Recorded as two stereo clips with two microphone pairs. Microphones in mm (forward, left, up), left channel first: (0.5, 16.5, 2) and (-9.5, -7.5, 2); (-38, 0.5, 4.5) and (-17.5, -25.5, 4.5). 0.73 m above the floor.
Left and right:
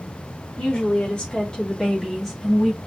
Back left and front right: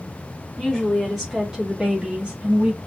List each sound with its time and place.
0.6 s a woman speaking: 35° left, 1.7 m; by 2.8 s 40° right, 1.4 m